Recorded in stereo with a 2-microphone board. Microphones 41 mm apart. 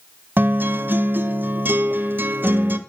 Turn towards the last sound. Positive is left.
turn(degrees=-50)  # may be behind; listen again after turning